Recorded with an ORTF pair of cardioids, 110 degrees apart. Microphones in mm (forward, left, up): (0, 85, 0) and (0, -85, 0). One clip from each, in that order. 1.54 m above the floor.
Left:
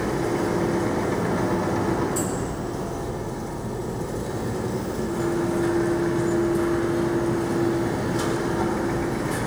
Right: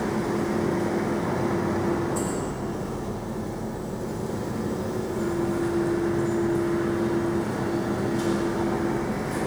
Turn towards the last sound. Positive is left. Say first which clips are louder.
# left 2 dB
turn(degrees=40)